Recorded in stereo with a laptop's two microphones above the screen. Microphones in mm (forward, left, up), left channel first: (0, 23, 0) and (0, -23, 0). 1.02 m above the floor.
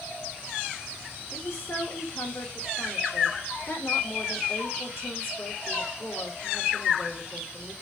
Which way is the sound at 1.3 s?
60° left (ahead or behind).